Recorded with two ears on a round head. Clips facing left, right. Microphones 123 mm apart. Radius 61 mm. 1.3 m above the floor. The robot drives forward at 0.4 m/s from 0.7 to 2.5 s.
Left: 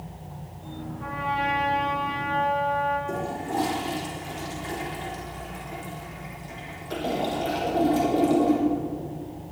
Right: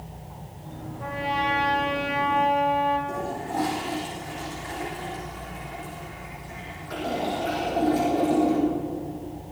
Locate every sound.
1.0 s a trumpet: 55° right (ahead or behind), 5.5 m; by 3.0 s 60° right (ahead or behind), 5 m
3.1 s a toilet flushing: 30° left (ahead or behind), 5 m